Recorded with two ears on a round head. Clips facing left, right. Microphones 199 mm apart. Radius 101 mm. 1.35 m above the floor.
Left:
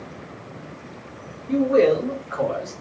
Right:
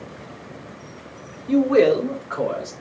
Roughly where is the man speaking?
Right.